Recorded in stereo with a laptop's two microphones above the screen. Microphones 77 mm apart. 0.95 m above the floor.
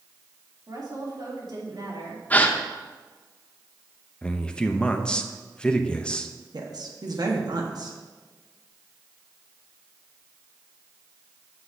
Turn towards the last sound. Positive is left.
turn(degrees=-60)  # may be behind; listen again after turning